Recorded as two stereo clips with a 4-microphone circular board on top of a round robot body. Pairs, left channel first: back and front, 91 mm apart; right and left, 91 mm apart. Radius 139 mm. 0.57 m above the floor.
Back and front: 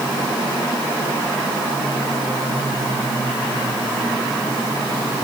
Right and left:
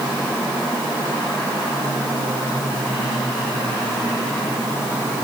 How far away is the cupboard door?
No cupboard door in this recording.